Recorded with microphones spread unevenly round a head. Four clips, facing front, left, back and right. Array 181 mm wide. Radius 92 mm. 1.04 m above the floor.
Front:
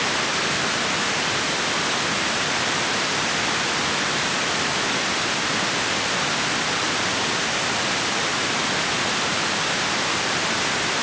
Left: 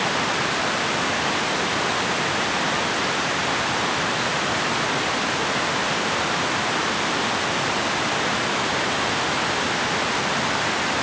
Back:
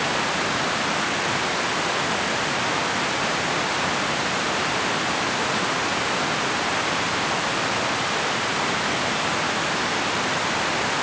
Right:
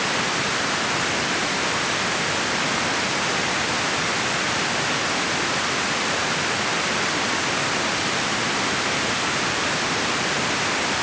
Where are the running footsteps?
I don't hear running footsteps.